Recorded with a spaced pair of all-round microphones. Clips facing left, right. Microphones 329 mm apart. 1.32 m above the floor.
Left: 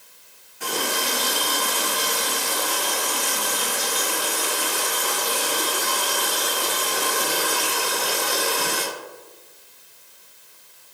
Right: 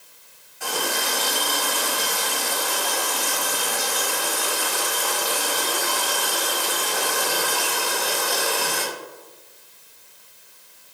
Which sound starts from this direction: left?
A running tap, at 0.6 s.